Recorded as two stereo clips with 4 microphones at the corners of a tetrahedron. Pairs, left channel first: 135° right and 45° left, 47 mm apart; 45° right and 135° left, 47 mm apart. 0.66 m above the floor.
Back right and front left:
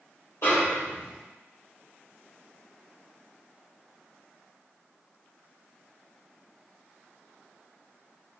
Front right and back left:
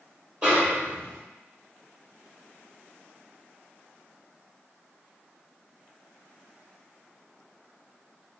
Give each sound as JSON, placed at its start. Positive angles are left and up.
{"t": 0.4, "sound": "a snare drum", "azimuth_deg": -155, "distance_m": 1.2}